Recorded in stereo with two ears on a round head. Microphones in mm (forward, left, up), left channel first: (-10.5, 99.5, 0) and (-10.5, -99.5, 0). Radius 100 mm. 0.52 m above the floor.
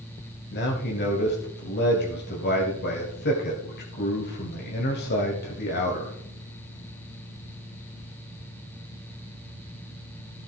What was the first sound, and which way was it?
A man speaking, 50° left (ahead or behind).